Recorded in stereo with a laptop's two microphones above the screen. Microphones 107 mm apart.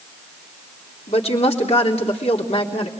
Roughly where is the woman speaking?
Left.